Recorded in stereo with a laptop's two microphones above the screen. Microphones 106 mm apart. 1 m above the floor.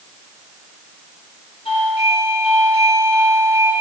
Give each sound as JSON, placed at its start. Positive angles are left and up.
{"t": 1.6, "sound": "a doorbell", "side_deg": 75, "distance_m": 7.0}